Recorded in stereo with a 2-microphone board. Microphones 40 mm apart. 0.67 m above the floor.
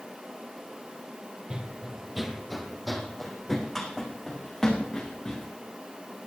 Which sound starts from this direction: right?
Running footsteps, at 1.5 s.